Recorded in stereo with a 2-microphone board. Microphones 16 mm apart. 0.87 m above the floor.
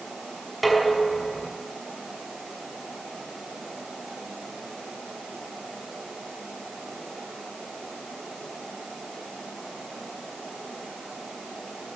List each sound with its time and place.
0.6 s dishes clattering: centre (ahead or behind), 5.5 m